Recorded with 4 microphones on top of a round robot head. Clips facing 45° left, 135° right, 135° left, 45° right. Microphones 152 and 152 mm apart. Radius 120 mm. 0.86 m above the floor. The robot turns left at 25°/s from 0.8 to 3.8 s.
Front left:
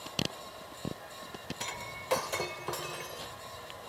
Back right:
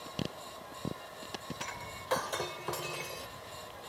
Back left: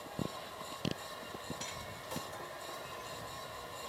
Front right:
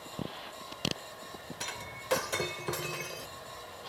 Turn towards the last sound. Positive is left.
turn(degrees=-70)